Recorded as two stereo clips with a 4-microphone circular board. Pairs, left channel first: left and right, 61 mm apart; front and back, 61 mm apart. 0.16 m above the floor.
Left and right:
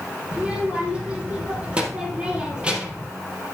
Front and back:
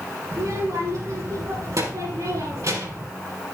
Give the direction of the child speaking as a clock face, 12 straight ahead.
5 o'clock.